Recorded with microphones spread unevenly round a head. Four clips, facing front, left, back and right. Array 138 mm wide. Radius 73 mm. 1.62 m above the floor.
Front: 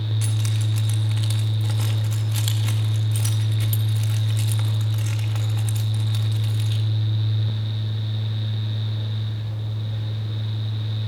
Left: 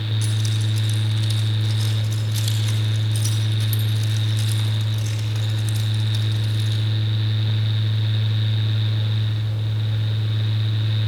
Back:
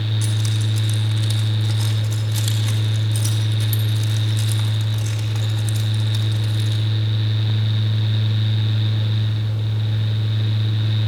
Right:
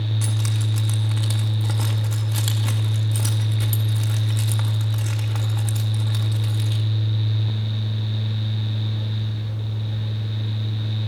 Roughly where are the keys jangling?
Right.